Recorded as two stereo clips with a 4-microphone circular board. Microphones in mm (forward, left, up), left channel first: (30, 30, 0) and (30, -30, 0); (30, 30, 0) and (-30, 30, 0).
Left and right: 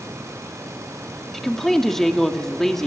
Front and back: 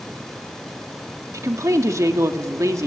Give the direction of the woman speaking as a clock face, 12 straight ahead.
6 o'clock.